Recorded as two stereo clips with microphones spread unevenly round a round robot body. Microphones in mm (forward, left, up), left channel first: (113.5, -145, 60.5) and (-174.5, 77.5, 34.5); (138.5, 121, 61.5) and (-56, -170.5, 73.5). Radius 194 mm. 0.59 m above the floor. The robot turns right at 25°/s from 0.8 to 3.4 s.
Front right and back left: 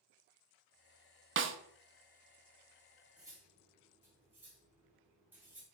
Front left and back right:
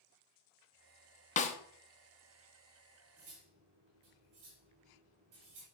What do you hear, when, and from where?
1.4 s a snare drum: 110° left, 0.7 m; by 1.6 s 115° left, 0.7 m
3.2 s cutlery clinking: 140° right, 4 m; by 5.6 s 135° right, 4 m